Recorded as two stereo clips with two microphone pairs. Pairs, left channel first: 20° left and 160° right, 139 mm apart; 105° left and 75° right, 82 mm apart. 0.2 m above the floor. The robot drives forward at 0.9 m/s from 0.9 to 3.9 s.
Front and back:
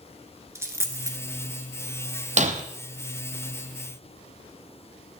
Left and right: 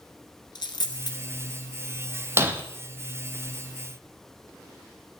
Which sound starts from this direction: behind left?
A dropped coin, at 0.6 s.